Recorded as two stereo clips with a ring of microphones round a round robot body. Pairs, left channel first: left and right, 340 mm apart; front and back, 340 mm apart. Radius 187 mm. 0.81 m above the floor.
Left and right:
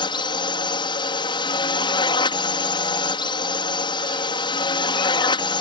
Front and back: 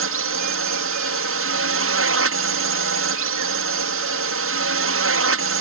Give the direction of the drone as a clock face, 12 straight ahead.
7 o'clock.